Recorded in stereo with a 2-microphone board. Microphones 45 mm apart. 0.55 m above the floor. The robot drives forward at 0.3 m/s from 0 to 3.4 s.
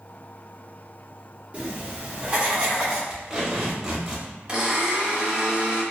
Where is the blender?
20° right (ahead or behind), 1.2 m.